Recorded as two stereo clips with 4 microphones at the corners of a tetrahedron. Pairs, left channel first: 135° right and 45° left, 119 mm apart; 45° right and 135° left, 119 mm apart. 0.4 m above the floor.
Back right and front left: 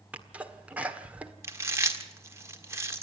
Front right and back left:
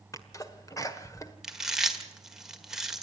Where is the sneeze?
25° right, 1.4 m.